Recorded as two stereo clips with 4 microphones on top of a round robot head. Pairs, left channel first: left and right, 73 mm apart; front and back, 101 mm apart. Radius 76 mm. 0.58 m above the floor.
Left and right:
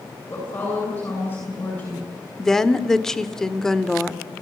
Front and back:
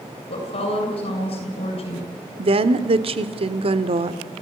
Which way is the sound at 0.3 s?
20° left.